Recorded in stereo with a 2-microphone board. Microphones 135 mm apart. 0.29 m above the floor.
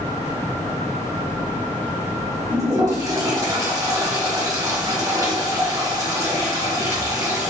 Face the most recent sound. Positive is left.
turn(degrees=-25)  # may be behind; listen again after turning